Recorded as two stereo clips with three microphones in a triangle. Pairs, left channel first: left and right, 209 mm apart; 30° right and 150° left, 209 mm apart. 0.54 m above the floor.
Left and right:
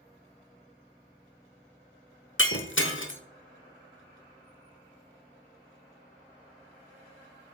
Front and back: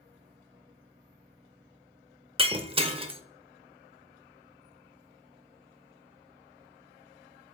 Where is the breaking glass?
90° left, 0.9 m.